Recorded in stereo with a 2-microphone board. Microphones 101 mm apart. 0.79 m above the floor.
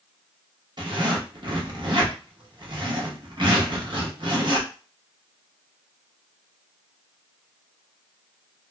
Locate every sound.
0.8 s a zipper: 50° right (ahead or behind), 0.9 m